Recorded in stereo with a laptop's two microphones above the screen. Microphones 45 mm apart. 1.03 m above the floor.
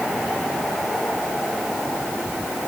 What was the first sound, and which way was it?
Only background noise.